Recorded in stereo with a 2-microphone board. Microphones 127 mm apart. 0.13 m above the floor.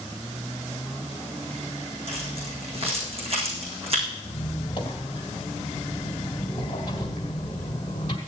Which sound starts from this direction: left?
A squeak, at 4.2 s.